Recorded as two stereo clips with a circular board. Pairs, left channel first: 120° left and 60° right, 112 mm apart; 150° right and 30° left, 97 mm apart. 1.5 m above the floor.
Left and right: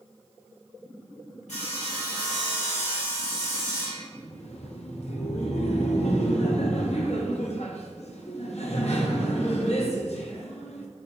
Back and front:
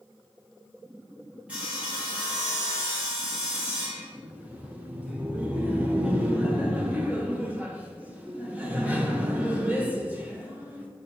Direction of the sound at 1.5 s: 110° left.